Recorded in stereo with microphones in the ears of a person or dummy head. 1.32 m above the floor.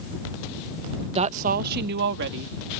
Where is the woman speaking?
30° right (ahead or behind); by 2.8 s 65° right (ahead or behind).